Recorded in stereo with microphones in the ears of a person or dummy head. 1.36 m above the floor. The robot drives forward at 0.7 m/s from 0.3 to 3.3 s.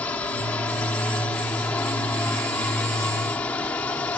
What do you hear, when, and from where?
0.0 s a drone: 5° left (ahead or behind)